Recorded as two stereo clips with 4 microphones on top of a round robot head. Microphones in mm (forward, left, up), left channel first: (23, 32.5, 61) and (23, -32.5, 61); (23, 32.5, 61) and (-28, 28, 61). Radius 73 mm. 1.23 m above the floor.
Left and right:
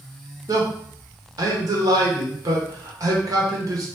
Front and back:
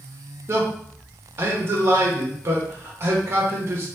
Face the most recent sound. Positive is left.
turn(degrees=-125)